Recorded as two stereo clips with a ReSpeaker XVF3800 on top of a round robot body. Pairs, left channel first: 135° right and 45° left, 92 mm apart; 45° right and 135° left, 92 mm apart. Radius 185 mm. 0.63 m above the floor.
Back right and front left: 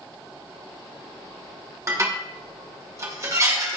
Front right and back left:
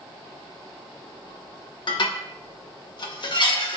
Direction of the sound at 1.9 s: 15° right.